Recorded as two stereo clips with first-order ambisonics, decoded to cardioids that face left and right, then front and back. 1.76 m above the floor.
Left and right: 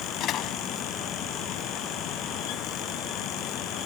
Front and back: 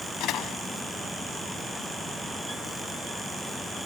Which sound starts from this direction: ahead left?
A door slam, at 0.2 s.